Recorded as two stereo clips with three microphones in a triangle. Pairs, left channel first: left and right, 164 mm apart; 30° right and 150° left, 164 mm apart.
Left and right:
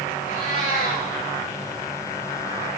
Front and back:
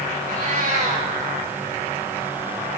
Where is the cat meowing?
115° left, 7 m.